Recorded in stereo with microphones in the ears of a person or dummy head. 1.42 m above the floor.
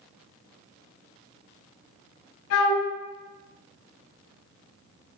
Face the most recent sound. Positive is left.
turn(degrees=65)  # may be behind; listen again after turning